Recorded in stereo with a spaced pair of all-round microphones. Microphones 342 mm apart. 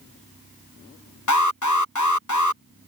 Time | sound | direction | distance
1.3 | an alarm | 55° left (ahead or behind) | ?